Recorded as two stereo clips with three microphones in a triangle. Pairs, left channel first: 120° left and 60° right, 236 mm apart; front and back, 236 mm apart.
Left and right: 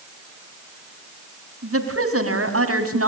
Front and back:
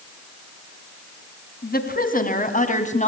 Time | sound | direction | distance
1.6 | a woman speaking | 50° right | 3.5 m